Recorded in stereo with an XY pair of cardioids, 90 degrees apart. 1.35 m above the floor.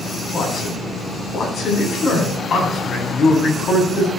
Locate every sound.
0.3 s a man speaking: 55° left, 9 m